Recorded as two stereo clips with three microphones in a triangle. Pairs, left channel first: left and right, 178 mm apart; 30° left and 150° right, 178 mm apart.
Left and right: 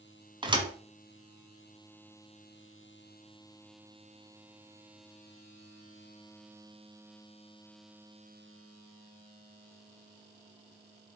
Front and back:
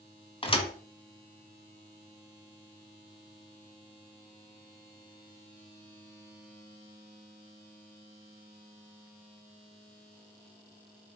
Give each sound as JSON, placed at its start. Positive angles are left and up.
{"t": 0.4, "sound": "a thud", "azimuth_deg": -30, "distance_m": 1.4}